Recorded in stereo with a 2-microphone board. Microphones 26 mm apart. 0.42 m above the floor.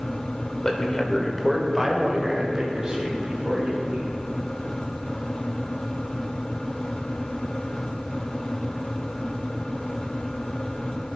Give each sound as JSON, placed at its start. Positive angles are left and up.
{"t": 0.6, "sound": "a man speaking", "side_deg": 25, "distance_m": 1.1}